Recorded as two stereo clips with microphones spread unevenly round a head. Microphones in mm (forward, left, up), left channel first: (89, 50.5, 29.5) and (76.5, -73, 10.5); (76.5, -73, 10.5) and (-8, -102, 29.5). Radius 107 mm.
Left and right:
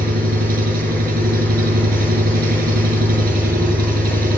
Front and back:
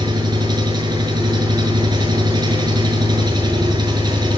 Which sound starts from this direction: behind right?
An engine running, at 0.0 s.